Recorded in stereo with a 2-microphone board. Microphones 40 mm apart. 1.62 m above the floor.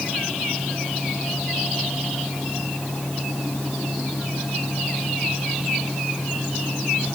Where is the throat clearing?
I don't hear throat clearing.